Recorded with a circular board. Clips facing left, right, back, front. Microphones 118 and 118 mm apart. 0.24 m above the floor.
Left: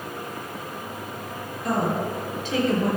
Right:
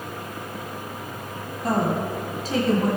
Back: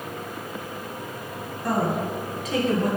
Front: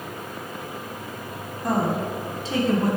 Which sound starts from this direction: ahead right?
A woman speaking, at 1.6 s.